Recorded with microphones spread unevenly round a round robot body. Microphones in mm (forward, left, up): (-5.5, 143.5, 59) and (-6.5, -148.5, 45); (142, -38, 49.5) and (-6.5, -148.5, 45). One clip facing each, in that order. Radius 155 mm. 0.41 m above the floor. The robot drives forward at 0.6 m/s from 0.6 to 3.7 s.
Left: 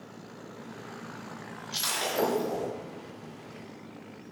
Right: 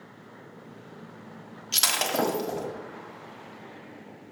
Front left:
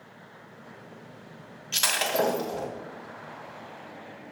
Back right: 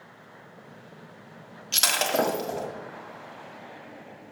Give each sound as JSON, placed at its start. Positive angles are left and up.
{"t": 1.7, "sound": "breaking glass", "azimuth_deg": -95, "distance_m": 1.5}